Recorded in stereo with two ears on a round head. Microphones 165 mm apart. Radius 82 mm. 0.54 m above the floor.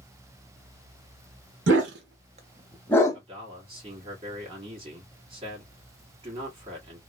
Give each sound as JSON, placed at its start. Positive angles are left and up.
{"t": 1.7, "sound": "a dog barking", "side_deg": -75, "distance_m": 0.9}
{"t": 3.1, "sound": "a man speaking", "side_deg": -30, "distance_m": 1.5}